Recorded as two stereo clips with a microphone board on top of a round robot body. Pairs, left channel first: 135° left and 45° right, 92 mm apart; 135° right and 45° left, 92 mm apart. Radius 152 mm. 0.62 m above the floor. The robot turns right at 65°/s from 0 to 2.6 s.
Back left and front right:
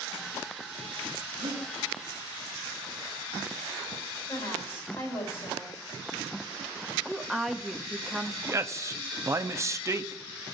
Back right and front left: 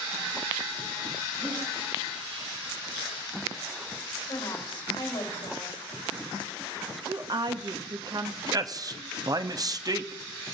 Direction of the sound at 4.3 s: 175° right.